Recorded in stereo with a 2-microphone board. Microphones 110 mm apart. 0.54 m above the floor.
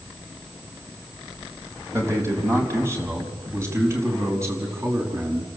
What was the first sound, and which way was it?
A man speaking, 25° right (ahead or behind).